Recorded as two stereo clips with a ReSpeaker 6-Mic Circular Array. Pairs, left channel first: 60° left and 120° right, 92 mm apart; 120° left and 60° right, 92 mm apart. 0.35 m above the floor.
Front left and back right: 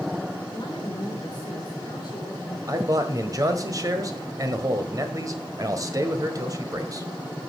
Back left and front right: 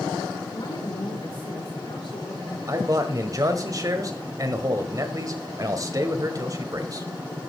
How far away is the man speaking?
About 1.5 m.